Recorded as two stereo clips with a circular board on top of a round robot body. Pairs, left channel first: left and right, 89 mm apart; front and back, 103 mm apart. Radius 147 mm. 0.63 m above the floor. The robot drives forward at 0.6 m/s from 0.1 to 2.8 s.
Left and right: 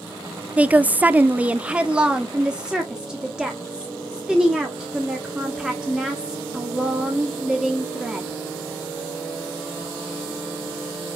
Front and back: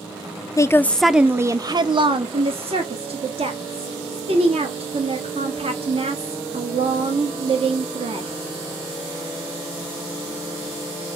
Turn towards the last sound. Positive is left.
turn(degrees=-175)